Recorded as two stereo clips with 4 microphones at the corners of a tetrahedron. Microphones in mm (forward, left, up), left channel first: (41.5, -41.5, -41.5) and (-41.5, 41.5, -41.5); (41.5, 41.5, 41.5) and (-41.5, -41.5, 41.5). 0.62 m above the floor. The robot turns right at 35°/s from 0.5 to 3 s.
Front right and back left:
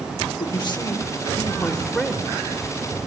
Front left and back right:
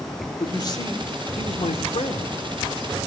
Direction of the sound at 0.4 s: 10° right.